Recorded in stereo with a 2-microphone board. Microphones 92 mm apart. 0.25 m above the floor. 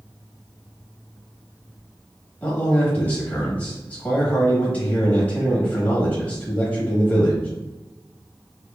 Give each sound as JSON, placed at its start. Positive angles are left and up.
{"t": 2.4, "sound": "a man speaking", "side_deg": 15, "distance_m": 1.0}